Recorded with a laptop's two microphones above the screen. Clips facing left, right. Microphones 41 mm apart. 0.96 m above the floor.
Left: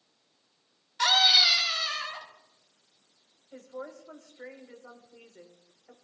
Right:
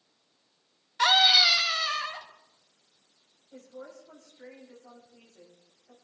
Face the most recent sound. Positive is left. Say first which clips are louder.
# left 4 dB
turn(degrees=45)  # may be behind; listen again after turning